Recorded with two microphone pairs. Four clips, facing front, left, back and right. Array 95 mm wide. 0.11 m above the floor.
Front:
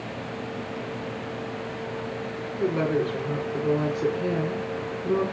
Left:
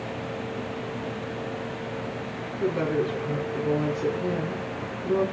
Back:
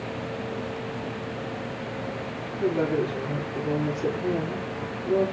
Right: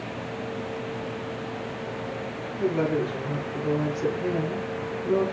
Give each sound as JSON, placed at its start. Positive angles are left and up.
{"t": 2.6, "sound": "a woman speaking", "azimuth_deg": 10, "distance_m": 3.5}